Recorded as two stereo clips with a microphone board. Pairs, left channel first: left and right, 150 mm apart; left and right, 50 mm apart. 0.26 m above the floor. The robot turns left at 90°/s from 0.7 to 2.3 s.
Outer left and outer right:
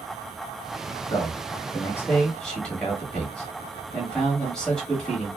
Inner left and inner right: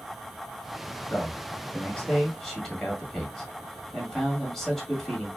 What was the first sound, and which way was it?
A man speaking, 20° left (ahead or behind).